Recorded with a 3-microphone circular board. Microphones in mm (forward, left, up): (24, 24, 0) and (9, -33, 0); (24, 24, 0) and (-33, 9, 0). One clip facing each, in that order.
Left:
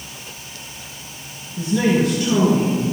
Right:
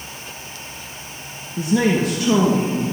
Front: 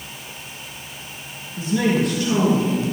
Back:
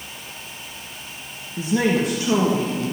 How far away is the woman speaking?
About 1.0 m.